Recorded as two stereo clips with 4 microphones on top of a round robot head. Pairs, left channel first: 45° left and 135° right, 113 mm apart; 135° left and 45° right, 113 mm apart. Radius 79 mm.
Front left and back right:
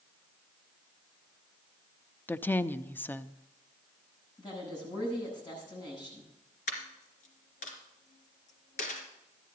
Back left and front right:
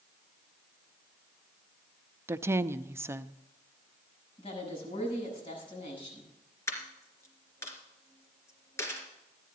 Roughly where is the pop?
I don't hear a pop.